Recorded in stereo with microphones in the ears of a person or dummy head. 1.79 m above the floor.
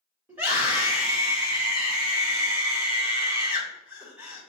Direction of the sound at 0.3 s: 10° right (ahead or behind).